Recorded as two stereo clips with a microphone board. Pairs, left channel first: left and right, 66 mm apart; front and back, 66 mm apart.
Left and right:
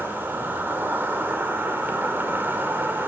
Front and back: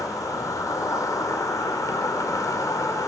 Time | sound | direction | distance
0.0 | an insect | 30° right | 1.8 m